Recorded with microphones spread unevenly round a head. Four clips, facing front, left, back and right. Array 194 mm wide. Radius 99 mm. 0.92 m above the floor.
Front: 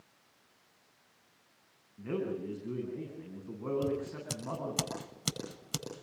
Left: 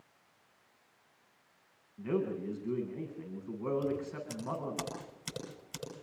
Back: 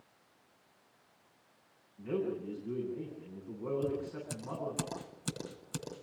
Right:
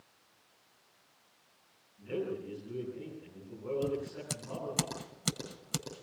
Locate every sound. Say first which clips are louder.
2.0 s a man speaking: left 3 dB, even; 55° left, 9 m
3.8 s scissors: even, front 1 dB; 45° right, 9.5 m